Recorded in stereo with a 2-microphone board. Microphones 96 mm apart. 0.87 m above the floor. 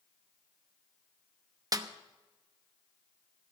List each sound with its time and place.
1.7 s a snare drum: 40° right (ahead or behind), 0.9 m